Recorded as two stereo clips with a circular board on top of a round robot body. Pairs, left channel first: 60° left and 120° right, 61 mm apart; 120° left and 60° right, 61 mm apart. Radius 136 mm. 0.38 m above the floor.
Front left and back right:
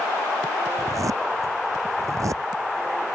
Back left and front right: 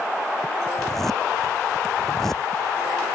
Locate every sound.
0.8 s a zipper: 155° right